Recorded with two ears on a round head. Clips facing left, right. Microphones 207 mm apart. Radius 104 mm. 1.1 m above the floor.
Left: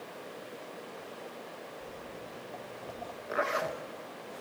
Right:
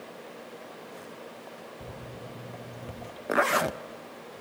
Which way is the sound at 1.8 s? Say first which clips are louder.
Right 2 dB; 45° right (ahead or behind).